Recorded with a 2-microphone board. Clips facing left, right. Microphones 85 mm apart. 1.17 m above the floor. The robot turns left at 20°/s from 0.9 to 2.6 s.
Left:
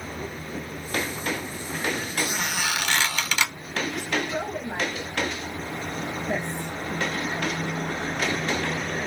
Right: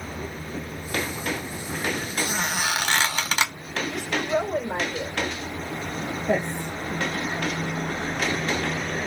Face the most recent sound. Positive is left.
turn(degrees=-85)